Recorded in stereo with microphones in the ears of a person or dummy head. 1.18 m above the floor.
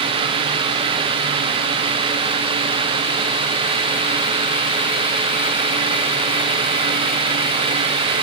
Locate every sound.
Only background noise.